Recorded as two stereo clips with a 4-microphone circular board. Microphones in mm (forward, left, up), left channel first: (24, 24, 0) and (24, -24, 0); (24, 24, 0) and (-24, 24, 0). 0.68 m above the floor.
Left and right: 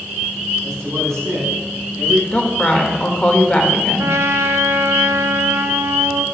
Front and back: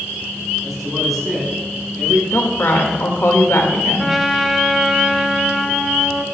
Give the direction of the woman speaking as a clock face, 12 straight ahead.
11 o'clock.